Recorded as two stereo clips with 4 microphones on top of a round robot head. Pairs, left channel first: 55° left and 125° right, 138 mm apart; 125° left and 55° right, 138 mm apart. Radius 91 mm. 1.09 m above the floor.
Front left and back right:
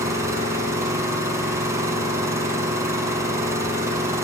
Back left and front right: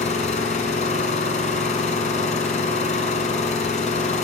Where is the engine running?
165° left, 6 m.